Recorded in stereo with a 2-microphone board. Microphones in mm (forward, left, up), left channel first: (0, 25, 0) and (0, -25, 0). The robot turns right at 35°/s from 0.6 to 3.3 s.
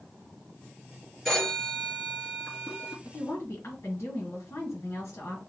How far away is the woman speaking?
About 2.5 m.